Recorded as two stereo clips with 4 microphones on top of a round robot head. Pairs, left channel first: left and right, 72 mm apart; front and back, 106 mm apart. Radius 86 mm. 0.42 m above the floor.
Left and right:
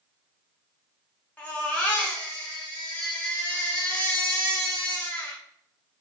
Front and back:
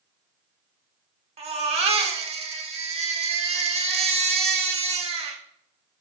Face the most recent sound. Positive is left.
turn(degrees=165)